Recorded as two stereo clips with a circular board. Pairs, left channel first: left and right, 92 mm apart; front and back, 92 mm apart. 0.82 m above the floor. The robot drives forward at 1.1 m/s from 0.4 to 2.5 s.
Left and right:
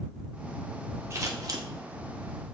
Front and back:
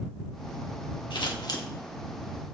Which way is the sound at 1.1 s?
30° right.